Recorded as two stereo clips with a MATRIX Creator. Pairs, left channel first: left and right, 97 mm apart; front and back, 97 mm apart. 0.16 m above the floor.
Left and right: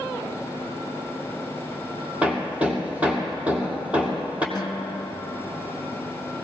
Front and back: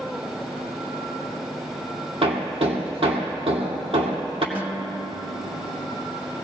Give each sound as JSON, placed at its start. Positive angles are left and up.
{"t": 2.2, "sound": "hammering", "azimuth_deg": -165, "distance_m": 2.5}
{"t": 4.5, "sound": "a guitar", "azimuth_deg": 115, "distance_m": 0.6}